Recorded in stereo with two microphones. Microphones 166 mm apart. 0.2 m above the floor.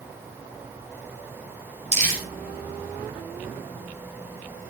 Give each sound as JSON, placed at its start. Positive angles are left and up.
{"t": 1.9, "sound": "crumpling", "side_deg": -45, "distance_m": 10.0}